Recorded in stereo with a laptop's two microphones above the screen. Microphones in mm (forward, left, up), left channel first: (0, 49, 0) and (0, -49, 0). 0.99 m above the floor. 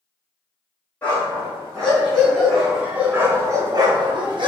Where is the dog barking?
15° left (ahead or behind), 1.4 m; by 4.5 s 55° right (ahead or behind), 0.7 m.